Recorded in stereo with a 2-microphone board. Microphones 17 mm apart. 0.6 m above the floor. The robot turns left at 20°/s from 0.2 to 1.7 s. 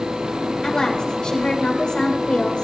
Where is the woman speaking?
50° left (ahead or behind), 2.5 m; by 2.6 s 65° left (ahead or behind), 2.5 m.